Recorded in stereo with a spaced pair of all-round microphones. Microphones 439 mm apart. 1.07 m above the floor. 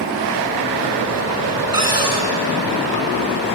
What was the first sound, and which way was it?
A cupboard door, 50° right (ahead or behind).